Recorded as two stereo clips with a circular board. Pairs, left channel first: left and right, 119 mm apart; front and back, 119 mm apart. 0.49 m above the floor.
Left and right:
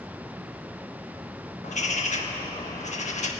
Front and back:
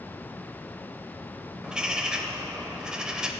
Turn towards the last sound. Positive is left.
turn(degrees=95)